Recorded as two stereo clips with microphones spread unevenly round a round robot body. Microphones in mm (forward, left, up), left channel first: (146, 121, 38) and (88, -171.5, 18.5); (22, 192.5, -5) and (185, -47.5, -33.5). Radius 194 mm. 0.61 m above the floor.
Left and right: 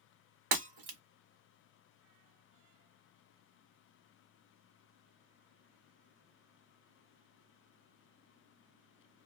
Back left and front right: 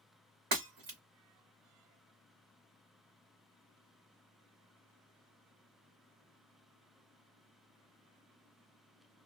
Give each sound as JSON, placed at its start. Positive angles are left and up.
{"t": 0.5, "sound": "breaking glass", "azimuth_deg": -125, "distance_m": 0.8}